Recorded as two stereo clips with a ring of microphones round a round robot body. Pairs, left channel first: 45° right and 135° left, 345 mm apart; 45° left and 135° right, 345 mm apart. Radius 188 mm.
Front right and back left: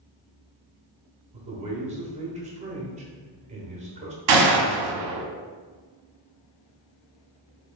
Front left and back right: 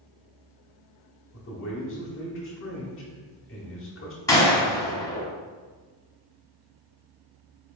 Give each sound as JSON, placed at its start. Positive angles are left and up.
{"t": 1.3, "sound": "a man speaking", "azimuth_deg": 75, "distance_m": 1.0}
{"t": 4.3, "sound": "a gunshot", "azimuth_deg": 125, "distance_m": 0.8}